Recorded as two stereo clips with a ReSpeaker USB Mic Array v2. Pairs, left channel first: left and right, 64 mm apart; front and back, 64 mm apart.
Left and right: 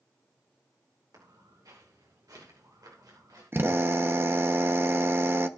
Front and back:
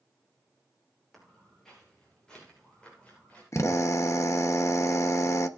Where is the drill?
40° right, 0.9 m.